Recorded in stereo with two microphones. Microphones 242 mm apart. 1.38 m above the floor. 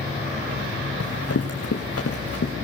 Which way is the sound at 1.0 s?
75° left (ahead or behind).